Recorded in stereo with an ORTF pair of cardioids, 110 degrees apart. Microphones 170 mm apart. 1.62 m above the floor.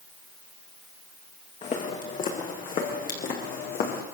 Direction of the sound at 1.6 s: 50° left.